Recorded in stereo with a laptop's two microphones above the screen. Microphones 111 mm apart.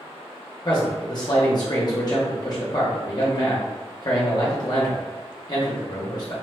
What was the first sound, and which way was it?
A man speaking, 40° left (ahead or behind).